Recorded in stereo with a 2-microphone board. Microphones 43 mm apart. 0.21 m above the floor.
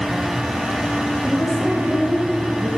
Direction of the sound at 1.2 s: 10° left (ahead or behind).